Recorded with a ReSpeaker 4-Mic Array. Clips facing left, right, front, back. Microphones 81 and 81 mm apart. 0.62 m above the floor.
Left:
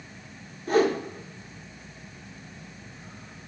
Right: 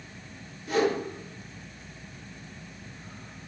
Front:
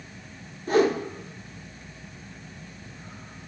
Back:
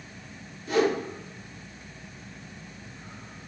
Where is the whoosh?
45° left, 0.6 m.